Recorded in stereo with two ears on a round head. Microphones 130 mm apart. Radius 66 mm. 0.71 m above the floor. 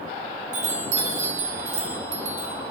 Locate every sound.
0.5 s a chime: 50° right (ahead or behind), 4 m